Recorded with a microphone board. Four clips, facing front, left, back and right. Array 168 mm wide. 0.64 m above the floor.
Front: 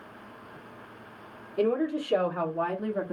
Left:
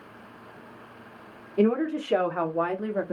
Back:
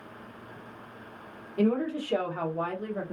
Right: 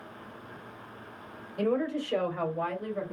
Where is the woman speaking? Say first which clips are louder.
Left 5 dB, front 1 dB; 80° left, 2 m; by 3.1 s 70° left, 1.3 m.